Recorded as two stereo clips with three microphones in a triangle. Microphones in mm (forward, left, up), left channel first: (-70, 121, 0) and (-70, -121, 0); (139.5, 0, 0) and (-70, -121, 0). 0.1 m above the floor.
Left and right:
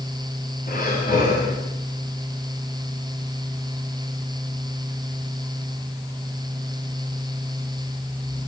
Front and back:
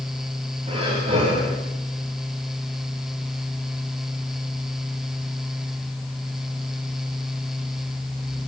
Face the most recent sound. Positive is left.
turn(degrees=145)